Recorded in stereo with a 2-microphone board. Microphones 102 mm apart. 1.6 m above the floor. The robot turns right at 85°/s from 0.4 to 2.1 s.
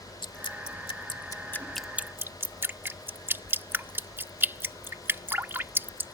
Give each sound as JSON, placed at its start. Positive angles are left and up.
{"t": 0.2, "sound": "dripping", "side_deg": 50}